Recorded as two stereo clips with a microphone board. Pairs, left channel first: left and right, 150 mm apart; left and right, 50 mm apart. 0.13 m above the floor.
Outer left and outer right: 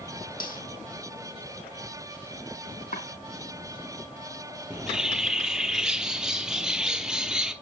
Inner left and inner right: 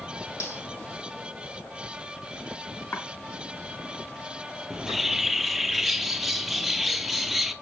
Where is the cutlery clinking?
75° left (ahead or behind), 3 m.